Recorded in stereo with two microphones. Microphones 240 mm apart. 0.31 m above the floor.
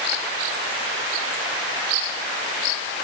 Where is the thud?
I don't hear a thud.